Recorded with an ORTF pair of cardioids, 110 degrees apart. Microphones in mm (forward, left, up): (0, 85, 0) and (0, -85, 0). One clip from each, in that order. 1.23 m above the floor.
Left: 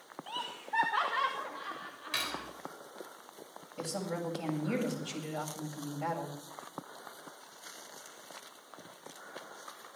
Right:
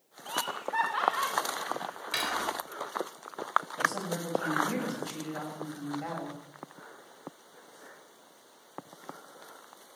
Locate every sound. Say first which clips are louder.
0.3 s laughter: right 5 dB; 10° right, 2 m; by 2.5 s 20° left, 3.5 m
2.1 s cutlery clinking: right 5 dB; 15° right, 3.5 m
3.8 s a woman speaking: right 7 dB; 15° left, 7.5 m